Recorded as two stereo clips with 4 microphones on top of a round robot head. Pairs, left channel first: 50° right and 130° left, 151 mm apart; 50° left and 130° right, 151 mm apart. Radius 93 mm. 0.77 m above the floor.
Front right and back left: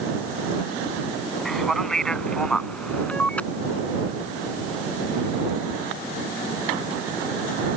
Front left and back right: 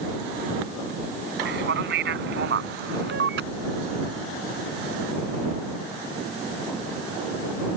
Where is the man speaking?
140° right; by 3.5 s 135° right.